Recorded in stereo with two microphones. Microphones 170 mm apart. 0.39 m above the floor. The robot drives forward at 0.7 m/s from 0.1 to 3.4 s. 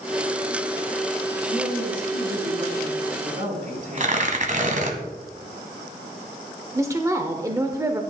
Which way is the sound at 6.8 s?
20° right (ahead or behind).